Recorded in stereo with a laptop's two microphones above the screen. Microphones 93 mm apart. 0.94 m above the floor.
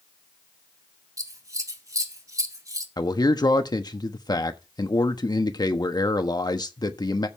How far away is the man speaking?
About 1.3 m.